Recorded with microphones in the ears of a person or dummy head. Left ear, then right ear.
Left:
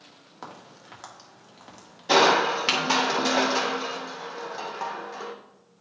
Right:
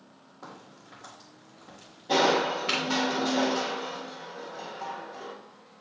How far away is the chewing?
I don't hear chewing.